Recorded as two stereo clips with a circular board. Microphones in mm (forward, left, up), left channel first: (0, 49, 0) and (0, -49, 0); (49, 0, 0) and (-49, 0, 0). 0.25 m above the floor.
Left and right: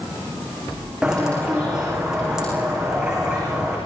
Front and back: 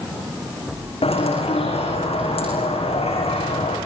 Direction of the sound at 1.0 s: 5° right.